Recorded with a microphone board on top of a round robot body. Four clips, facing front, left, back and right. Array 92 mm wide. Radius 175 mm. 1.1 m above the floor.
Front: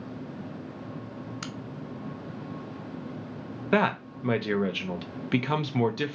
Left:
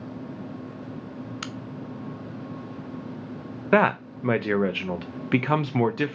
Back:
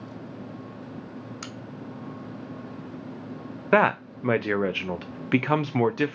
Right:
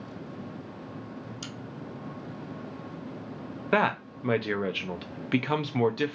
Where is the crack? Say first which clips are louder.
Left 5 dB, front 1 dB; 95° left, 0.6 m.